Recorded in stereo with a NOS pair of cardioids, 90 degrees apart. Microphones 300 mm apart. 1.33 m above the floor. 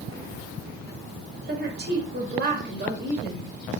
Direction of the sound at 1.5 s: 35° right.